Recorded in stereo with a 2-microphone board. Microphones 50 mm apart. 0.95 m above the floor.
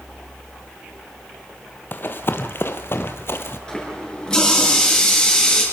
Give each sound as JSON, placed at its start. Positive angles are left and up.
{"t": 1.9, "sound": "running footsteps", "side_deg": 45, "distance_m": 1.5}
{"t": 3.7, "sound": "a running tap", "side_deg": 15, "distance_m": 8.5}